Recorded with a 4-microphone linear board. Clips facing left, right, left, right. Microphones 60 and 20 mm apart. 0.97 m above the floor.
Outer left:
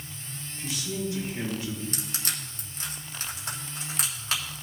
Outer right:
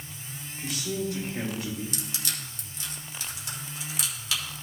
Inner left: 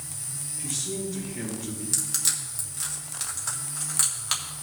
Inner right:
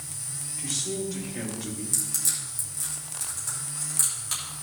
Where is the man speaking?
75° right (ahead or behind), 4 m; by 1.8 s 80° right, 5 m.